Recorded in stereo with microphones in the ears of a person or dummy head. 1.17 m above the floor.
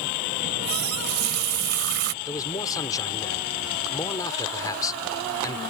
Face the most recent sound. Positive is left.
turn(degrees=20)  # may be behind; listen again after turning